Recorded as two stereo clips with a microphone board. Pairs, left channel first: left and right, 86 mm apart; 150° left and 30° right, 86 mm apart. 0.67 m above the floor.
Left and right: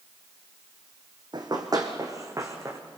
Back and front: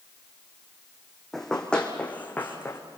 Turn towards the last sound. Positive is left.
turn(degrees=-145)